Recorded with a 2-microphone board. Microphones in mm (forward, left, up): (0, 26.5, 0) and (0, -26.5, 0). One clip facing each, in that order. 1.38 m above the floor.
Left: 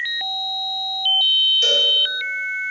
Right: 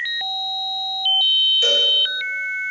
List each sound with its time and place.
1.6 s a cowbell: 10° right (ahead or behind), 2 m